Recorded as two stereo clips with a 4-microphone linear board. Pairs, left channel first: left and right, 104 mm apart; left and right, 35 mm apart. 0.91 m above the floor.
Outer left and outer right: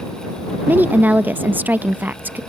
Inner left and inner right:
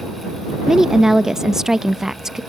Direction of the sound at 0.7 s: 15° right (ahead or behind).